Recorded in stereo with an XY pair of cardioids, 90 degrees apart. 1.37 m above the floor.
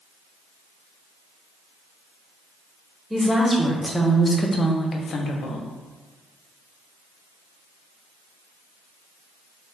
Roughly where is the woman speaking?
Ahead.